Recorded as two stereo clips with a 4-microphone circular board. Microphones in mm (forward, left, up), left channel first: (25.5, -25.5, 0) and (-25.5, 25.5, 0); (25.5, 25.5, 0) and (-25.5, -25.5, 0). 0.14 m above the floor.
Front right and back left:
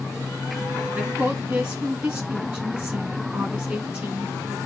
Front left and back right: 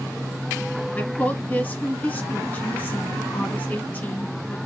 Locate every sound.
0.9 s a woman speaking: 75° left, 1.7 m